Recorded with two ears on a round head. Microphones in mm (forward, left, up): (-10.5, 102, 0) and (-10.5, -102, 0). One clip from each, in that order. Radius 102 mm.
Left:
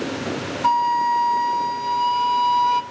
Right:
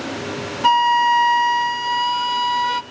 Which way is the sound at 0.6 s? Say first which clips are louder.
Right 4 dB; 50° right (ahead or behind).